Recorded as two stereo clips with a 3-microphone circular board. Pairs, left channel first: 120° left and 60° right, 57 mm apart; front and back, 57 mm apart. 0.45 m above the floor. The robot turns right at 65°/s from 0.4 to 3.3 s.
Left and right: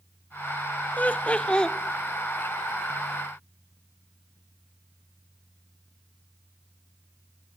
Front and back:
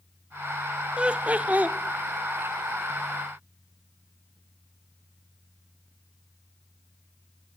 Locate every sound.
1.0 s laughter: 130° left, 0.8 m; by 1.8 s 175° right, 0.8 m